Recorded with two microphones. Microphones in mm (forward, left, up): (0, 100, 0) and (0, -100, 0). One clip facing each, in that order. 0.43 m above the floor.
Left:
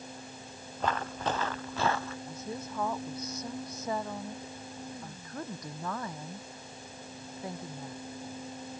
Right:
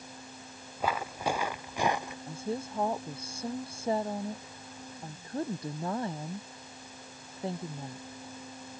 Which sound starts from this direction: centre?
Footsteps, at 0.8 s.